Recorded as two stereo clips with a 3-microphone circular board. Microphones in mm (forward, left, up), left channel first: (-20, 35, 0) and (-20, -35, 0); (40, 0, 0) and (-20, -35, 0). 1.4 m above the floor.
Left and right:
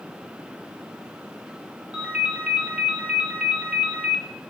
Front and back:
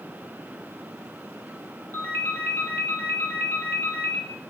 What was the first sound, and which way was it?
A ringtone, 20° right.